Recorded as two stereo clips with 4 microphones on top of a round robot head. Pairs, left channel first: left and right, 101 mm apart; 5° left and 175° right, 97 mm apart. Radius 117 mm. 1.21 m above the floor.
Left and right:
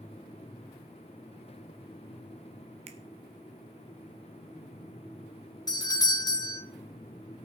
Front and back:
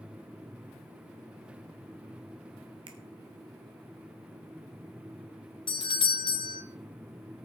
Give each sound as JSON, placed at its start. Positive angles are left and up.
{"t": 2.9, "sound": "a finger snap", "azimuth_deg": -125, "distance_m": 0.6}
{"t": 5.7, "sound": "a doorbell", "azimuth_deg": 35, "distance_m": 1.6}